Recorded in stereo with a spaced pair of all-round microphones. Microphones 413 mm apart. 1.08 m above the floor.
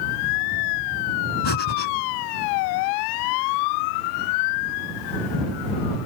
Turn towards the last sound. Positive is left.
turn(degrees=80)